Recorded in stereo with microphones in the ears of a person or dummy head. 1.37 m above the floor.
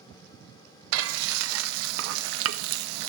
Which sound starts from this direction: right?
Frying, at 0.9 s.